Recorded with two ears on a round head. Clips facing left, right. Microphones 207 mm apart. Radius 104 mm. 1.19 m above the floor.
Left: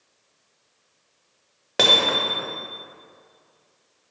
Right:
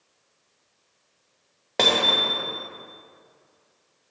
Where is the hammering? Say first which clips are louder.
Left 1 dB; 10° left (ahead or behind), 0.8 m.